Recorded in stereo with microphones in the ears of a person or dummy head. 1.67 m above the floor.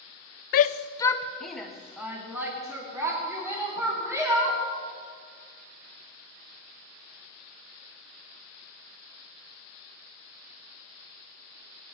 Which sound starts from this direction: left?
A shout, at 0.5 s.